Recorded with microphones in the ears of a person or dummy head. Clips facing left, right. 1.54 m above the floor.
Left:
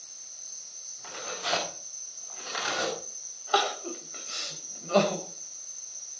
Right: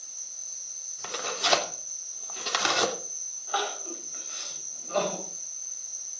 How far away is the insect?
About 1.4 m.